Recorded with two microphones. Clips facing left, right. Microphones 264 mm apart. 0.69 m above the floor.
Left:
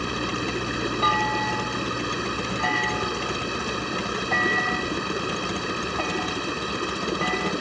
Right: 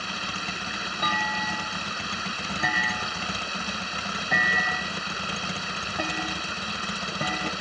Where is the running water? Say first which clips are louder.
Left 11 dB; 60° left (ahead or behind).